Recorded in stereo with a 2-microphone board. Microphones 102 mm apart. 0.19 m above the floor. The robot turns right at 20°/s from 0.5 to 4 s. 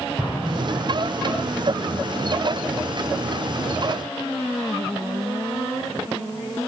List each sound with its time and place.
0.2 s an explosion: 10° right (ahead or behind), 8.5 m; by 1.0 s 20° right (ahead or behind), 8.5 m